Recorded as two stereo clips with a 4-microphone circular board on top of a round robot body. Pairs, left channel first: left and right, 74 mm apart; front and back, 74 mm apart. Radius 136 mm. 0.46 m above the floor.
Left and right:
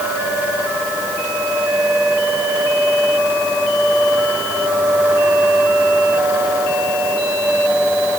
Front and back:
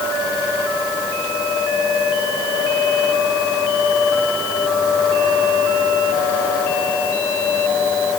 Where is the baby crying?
No baby crying in this recording.